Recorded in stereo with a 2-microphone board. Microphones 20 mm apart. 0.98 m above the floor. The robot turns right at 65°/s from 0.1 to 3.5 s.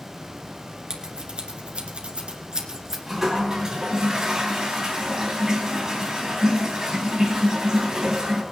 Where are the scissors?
30° right (ahead or behind), 2.0 m; by 3.0 s 10° right (ahead or behind), 2.0 m.